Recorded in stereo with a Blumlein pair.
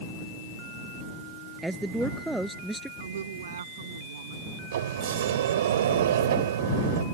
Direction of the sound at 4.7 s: 60° right.